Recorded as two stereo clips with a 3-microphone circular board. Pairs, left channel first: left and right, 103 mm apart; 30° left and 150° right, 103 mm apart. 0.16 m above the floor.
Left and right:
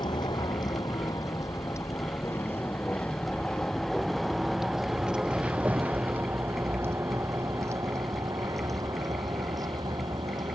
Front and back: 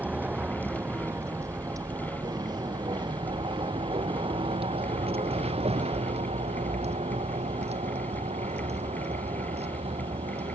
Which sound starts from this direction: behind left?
A vehicle, at 0.0 s.